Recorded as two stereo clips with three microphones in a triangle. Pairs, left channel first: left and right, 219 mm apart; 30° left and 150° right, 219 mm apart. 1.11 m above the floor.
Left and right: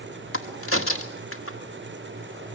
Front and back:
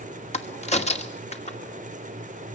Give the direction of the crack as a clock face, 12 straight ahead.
9 o'clock.